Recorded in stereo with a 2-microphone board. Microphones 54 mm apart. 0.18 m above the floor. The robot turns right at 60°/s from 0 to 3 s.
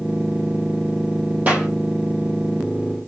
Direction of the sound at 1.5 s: 30° right (ahead or behind).